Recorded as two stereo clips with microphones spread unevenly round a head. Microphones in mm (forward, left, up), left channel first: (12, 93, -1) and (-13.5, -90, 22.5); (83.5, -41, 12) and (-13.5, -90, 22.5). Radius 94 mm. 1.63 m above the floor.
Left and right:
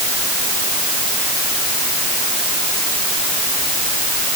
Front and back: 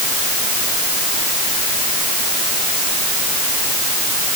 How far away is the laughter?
No laughter in this recording.